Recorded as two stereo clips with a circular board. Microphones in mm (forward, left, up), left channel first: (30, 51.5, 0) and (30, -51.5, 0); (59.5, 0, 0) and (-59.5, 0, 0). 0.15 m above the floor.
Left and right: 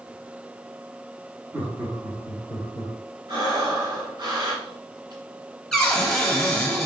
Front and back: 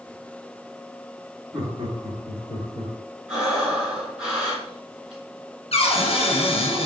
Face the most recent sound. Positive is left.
turn(degrees=5)